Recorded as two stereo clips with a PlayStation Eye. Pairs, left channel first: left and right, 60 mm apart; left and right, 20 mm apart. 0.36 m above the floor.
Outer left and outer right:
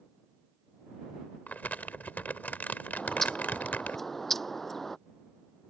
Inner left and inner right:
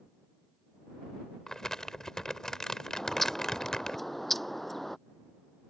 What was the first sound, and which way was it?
Crumpling, 30° left (ahead or behind).